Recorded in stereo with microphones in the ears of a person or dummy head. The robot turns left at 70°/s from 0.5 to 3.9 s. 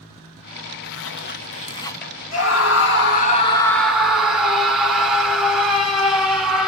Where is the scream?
110° left, 1.7 m; by 6.7 s straight ahead, 1.7 m.